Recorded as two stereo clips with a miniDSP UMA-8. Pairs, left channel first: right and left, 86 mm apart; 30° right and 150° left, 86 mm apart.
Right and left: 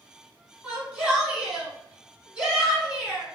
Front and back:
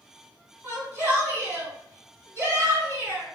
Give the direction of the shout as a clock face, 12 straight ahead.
7 o'clock.